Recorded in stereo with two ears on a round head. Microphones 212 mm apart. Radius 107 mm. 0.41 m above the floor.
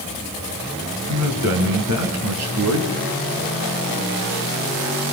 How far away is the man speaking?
About 6 m.